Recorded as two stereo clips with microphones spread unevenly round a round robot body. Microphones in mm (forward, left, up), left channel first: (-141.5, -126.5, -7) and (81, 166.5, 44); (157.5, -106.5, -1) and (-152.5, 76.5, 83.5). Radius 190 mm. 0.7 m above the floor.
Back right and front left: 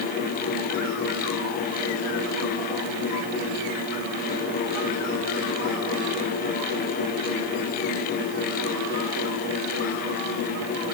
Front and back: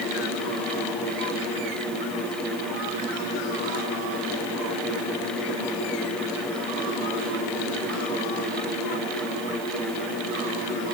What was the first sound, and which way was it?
Only background noise.